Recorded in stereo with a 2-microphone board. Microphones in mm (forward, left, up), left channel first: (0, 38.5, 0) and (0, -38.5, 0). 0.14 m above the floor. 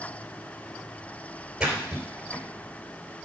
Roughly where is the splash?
Centre.